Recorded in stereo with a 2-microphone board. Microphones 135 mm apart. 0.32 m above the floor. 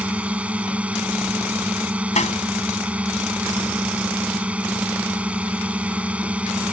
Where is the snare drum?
60° left (ahead or behind).